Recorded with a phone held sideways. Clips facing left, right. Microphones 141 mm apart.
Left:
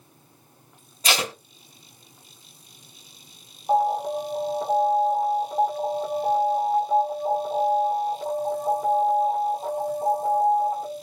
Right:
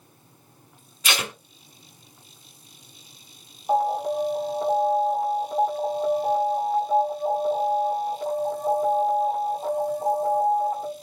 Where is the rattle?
I don't hear a rattle.